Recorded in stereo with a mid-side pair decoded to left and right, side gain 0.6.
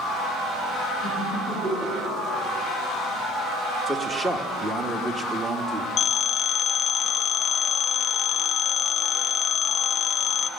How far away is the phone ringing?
About 0.5 m.